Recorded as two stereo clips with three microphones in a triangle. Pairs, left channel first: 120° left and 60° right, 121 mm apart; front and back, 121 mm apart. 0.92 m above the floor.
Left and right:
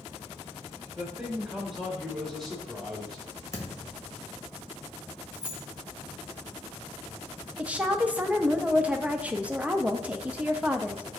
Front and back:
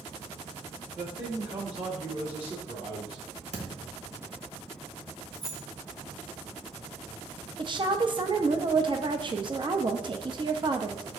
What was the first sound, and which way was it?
A man speaking, 145° right.